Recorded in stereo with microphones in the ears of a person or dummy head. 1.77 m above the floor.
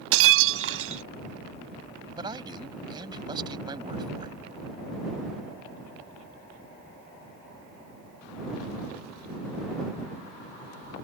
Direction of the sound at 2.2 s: 20° right (ahead or behind).